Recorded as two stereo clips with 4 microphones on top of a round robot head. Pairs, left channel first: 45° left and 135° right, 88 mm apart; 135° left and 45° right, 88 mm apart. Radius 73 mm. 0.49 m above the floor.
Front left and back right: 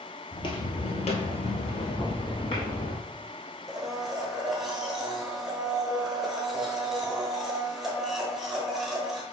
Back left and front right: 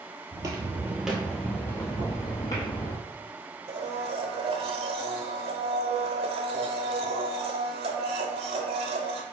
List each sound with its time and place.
0.3 s footsteps: straight ahead, 0.9 m; by 3.0 s 85° left, 1.6 m
2.0 s knocking: 40° right, 2.5 m
3.7 s a blender: 45° right, 0.9 m